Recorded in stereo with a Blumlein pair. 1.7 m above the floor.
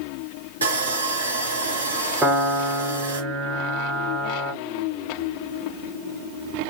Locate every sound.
0.6 s sawing: 70° right, 0.8 m
2.2 s a piano: 15° right, 0.8 m